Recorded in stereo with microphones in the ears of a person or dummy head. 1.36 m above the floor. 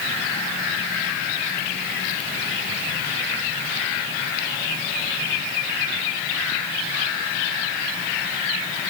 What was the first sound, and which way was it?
Only background noise.